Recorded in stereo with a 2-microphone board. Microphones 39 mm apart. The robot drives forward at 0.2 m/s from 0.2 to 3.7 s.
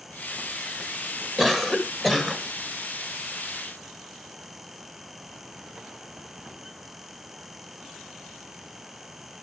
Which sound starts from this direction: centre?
A cough, at 1.4 s.